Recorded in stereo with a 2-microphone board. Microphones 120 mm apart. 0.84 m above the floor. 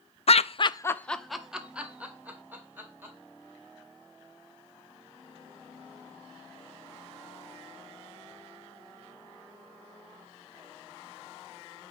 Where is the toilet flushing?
No toilet flushing in this recording.